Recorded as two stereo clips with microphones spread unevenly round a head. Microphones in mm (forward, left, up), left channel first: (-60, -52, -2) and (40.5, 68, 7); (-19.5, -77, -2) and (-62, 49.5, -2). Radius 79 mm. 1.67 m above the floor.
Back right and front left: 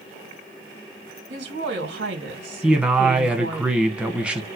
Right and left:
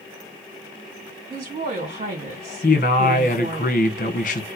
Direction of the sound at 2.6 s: 35° right.